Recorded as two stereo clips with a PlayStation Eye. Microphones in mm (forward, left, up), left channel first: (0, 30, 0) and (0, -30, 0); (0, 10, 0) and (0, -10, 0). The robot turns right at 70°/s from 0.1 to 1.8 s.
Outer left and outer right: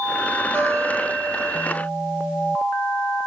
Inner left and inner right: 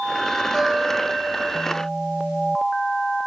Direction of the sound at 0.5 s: 140° right.